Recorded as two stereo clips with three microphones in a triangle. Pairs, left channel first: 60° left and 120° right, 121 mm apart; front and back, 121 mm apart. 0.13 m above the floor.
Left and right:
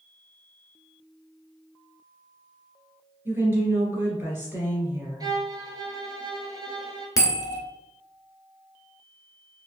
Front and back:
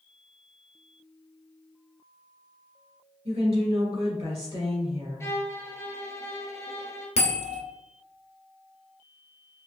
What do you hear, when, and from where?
3.2 s a woman speaking: 170° left, 1.9 m
5.2 s a violin: 65° right, 0.8 m
7.2 s a bell: 5° left, 0.9 m